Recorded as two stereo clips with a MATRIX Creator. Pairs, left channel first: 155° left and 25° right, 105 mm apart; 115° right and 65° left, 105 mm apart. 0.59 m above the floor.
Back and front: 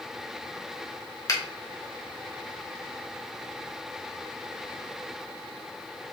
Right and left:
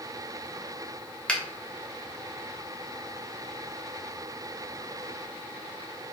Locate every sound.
1.3 s a finger snap: 175° left, 1.2 m